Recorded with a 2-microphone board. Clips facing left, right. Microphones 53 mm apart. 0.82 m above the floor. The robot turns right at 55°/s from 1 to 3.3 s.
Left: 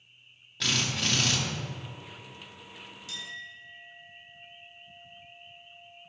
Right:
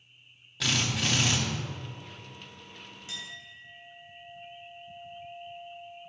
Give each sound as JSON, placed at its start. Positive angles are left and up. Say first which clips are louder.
{"t": 0.6, "sound": "a drill", "louder": "right 1 dB", "side_deg": 0, "distance_m": 1.7}
{"t": 3.1, "sound": "a clink", "louder": "left 2 dB", "side_deg": -30, "distance_m": 2.5}